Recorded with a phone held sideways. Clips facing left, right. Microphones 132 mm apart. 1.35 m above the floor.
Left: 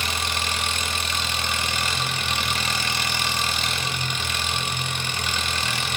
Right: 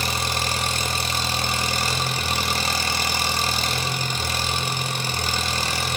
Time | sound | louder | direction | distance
0.0 | an engine running | right 2 dB | 35° right (ahead or behind) | 0.7 m